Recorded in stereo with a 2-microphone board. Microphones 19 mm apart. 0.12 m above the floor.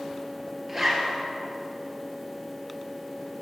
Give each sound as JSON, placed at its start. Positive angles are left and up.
{"t": 0.7, "sound": "a zipper", "side_deg": -15, "distance_m": 2.0}